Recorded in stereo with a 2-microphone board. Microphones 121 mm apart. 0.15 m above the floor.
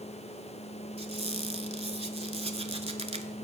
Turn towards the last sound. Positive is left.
turn(degrees=-60)  # may be behind; listen again after turning